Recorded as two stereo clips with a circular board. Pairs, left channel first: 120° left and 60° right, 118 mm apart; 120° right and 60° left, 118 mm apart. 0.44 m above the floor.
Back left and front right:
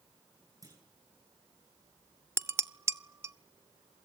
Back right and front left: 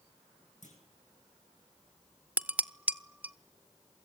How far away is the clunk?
About 9 m.